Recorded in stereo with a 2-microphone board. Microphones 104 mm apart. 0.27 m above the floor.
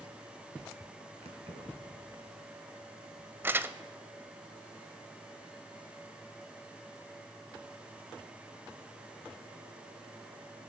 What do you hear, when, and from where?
1.2 s keys jangling: 75° right (ahead or behind), 2.5 m
3.4 s crumpling: 20° right (ahead or behind), 0.5 m